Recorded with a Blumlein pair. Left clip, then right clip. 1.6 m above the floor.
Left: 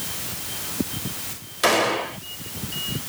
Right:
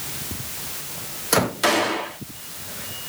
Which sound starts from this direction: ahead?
A gunshot, at 1.6 s.